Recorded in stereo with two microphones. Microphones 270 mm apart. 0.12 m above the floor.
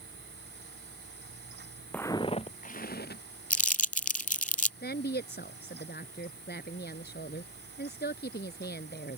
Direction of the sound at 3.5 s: 30° left (ahead or behind).